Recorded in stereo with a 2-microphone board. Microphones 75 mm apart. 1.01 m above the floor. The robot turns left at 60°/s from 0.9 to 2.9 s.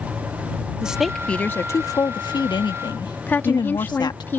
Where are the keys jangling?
I don't hear keys jangling.